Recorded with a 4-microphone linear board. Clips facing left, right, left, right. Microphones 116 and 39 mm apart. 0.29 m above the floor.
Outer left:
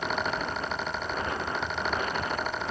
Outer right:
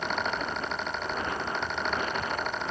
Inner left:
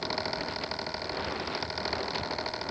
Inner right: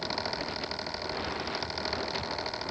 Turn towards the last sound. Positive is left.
No sound to turn to.